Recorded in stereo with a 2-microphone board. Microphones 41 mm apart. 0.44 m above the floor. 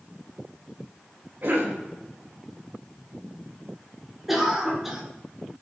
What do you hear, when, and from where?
1.4 s a cough: 50° right (ahead or behind), 1.6 m
4.3 s a cough: 10° right (ahead or behind), 1.5 m